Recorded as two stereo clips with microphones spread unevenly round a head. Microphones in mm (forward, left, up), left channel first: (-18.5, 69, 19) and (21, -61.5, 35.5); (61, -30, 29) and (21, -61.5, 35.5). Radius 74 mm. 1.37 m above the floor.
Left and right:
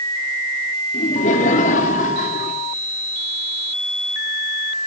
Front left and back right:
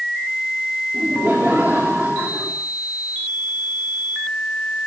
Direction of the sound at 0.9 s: 145° left.